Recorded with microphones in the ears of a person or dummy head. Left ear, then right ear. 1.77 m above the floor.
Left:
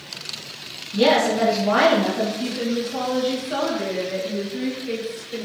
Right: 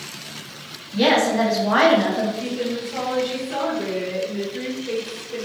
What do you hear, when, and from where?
0.9 s a woman speaking: 20° right (ahead or behind), 1.8 m
2.4 s a woman speaking: 20° left (ahead or behind), 1.3 m